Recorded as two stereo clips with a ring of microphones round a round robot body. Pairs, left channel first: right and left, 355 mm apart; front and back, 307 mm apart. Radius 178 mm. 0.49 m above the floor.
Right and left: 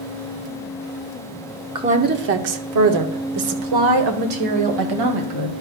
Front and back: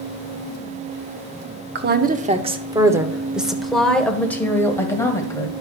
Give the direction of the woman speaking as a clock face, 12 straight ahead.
7 o'clock.